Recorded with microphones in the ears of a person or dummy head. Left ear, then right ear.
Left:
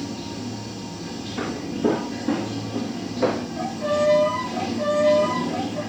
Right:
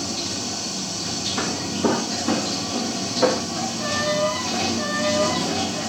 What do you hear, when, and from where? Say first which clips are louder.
0.0 s running water: right 6 dB; 80° right, 1.1 m
1.4 s footsteps: left 1 dB; 60° right (ahead or behind), 3 m; by 3.4 s 35° right (ahead or behind), 2.5 m
3.6 s a violin: left 2 dB; 40° right (ahead or behind), 6 m